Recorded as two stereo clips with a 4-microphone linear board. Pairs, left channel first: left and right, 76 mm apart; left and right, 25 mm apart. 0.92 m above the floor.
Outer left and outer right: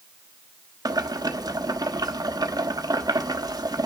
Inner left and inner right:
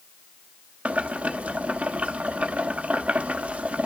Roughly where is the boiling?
Right.